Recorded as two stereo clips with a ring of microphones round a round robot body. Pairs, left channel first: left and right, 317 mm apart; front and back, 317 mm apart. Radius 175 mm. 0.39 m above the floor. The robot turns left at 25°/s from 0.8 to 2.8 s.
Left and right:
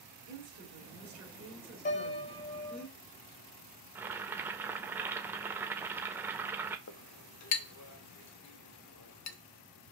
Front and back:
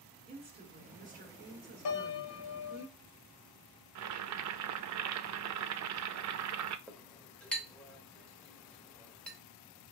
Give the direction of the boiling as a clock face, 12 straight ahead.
6 o'clock.